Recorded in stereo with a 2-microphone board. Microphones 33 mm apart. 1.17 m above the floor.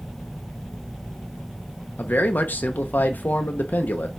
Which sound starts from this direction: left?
A man speaking, at 2.0 s.